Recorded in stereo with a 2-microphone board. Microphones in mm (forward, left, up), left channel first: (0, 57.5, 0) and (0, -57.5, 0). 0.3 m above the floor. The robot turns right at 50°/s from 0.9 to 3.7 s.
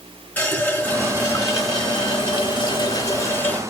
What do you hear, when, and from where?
0.4 s a running tap: 25° left, 0.7 m; by 3.6 s 160° left, 0.7 m